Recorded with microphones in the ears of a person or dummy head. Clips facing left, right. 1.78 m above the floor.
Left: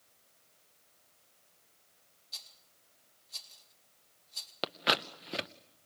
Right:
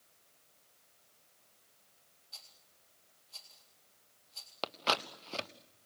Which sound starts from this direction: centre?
A rattle, at 2.3 s.